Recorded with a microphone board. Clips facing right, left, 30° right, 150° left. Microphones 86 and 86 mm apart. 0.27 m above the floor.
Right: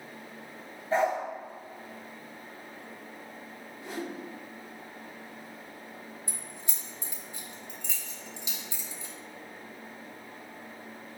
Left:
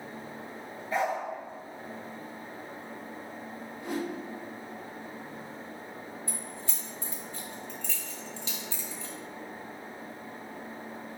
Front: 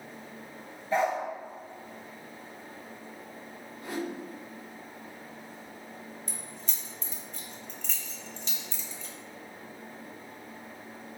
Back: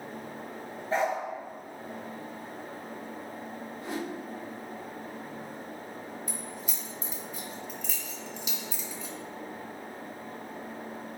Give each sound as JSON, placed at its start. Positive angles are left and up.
{"t": 0.9, "sound": "a dog barking", "azimuth_deg": -150, "distance_m": 1.1}
{"t": 3.8, "sound": "a whoosh", "azimuth_deg": 90, "distance_m": 1.3}
{"t": 6.3, "sound": "keys jangling", "azimuth_deg": -140, "distance_m": 0.8}